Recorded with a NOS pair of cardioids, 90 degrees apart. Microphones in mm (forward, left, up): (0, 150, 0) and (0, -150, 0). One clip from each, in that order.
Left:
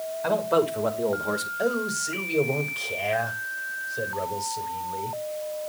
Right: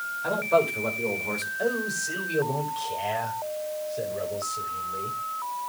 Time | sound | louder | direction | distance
0.2 | a man speaking | even | 30° left | 5 m
1.6 | a man speaking | even | 25° left | 5 m